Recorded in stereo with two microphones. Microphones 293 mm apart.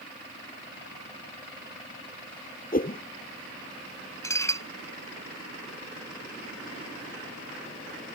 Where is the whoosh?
30° left (ahead or behind).